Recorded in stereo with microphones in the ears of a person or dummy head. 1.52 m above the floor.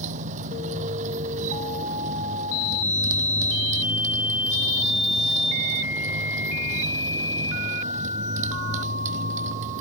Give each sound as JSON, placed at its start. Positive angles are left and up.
{"t": 0.0, "sound": "a motorcycle", "side_deg": -40}